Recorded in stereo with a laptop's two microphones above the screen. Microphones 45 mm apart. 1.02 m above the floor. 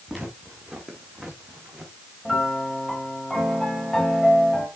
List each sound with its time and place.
0.1 s footsteps: 10° right (ahead or behind), 3 m; by 1.9 s 25° right (ahead or behind), 2 m
2.2 s a piano: 5° left (ahead or behind), 2.0 m